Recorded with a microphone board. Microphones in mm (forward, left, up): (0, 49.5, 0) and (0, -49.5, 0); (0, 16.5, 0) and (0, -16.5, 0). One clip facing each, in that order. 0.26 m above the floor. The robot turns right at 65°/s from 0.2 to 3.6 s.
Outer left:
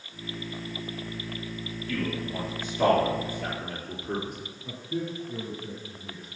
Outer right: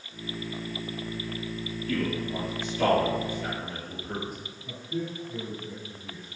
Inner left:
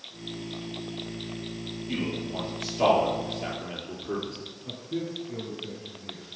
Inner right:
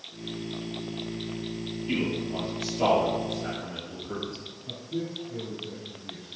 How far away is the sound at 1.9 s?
About 4 m.